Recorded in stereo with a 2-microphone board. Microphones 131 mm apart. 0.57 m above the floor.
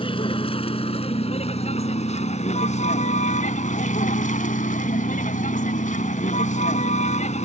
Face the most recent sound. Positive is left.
turn(degrees=65)  # may be behind; listen again after turning